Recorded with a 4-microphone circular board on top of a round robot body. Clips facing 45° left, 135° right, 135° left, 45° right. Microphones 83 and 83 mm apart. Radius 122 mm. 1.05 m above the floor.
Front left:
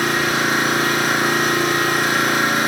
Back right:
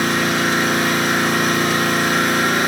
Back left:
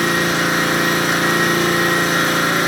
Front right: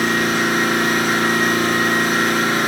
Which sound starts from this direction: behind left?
An engine running, at 0.0 s.